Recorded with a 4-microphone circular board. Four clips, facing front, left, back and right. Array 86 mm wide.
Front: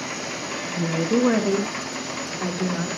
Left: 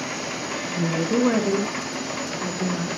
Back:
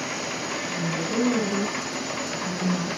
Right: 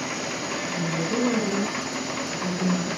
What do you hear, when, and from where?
0.8 s a woman speaking: 50° left, 1.4 m; by 2.9 s straight ahead, 4 m